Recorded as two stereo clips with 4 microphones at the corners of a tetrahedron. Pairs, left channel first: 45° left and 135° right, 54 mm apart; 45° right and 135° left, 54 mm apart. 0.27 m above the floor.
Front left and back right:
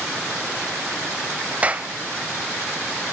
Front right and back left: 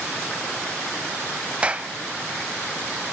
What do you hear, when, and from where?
1.6 s a clap: 175° right, 1.2 m